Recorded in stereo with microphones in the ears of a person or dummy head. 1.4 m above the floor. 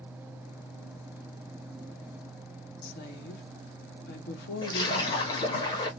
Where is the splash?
25° left (ahead or behind), 1.5 m.